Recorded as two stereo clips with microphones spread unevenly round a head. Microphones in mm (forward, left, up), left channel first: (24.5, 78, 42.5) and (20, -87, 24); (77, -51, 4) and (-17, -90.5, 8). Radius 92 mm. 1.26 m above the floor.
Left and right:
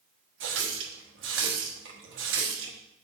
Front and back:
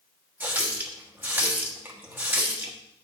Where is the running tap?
90° right, 1.2 m.